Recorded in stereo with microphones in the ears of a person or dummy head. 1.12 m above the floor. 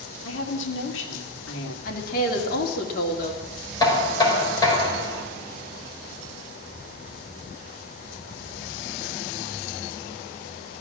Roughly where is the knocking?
Left.